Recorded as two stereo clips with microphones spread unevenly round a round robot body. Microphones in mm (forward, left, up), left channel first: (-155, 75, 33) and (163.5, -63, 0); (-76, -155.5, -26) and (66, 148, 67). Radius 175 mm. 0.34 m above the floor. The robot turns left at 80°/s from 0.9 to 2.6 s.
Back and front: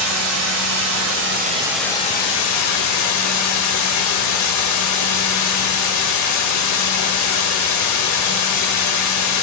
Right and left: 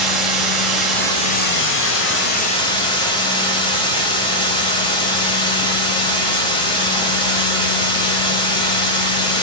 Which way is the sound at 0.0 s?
40° right.